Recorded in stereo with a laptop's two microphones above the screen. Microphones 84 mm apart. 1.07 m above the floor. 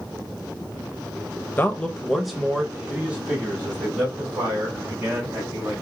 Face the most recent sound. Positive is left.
turn(degrees=-25)  # may be behind; listen again after turning